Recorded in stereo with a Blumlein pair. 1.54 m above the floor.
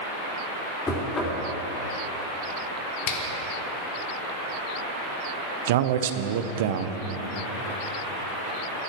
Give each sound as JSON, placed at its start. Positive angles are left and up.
{"t": 0.9, "sound": "knocking", "azimuth_deg": 15, "distance_m": 3.0}
{"t": 3.1, "sound": "a finger snap", "azimuth_deg": 45, "distance_m": 1.5}
{"t": 5.7, "sound": "a man speaking", "azimuth_deg": -55, "distance_m": 0.8}